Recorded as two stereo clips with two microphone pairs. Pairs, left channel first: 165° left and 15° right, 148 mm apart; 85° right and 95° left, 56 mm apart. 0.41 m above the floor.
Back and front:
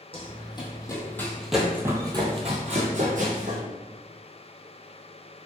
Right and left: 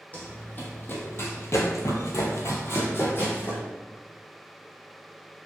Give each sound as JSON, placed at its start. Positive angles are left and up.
{"t": 0.1, "sound": "running footsteps", "azimuth_deg": -145, "distance_m": 1.1}